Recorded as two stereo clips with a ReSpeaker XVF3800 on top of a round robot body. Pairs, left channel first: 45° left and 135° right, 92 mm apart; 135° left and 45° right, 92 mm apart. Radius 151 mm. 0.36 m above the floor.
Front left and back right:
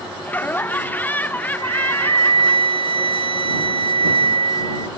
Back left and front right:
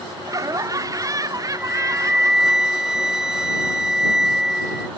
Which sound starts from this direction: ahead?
Laughter, at 0.2 s.